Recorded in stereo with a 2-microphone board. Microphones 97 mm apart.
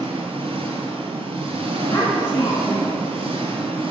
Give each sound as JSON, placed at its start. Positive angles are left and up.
{"t": 0.0, "sound": "an engine running", "side_deg": -70, "distance_m": 1.3}
{"t": 1.9, "sound": "a child speaking", "side_deg": 35, "distance_m": 1.2}